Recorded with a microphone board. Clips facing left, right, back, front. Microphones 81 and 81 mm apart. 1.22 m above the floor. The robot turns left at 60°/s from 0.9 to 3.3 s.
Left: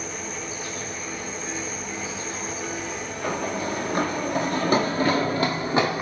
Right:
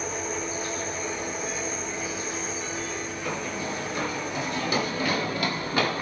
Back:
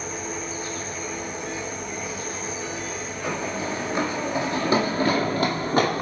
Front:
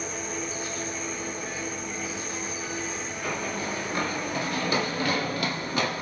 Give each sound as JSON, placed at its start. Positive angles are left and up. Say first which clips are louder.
{"t": 0.0, "sound": "an insect", "louder": "right 3 dB, back 2 dB", "azimuth_deg": -135, "distance_m": 6.5}
{"t": 3.2, "sound": "running footsteps", "louder": "left 6 dB, back 3 dB", "azimuth_deg": 110, "distance_m": 3.5}